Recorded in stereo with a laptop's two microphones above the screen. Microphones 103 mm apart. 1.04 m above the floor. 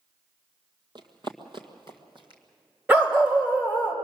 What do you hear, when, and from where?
0.9 s running footsteps: 45° right (ahead or behind), 1.4 m; by 2.4 s 50° right (ahead or behind), 2 m
2.9 s a dog barking: 20° right (ahead or behind), 1.6 m